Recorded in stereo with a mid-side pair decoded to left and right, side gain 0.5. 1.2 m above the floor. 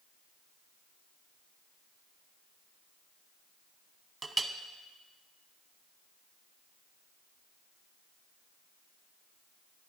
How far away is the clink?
About 0.7 m.